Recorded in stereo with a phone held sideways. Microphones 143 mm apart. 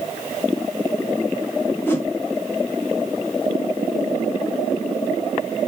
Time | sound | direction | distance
1.9 | a whoosh | 15° left (ahead or behind) | 0.9 m